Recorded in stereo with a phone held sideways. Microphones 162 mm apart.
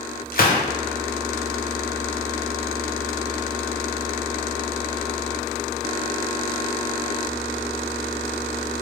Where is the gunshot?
65° left (ahead or behind), 0.5 m.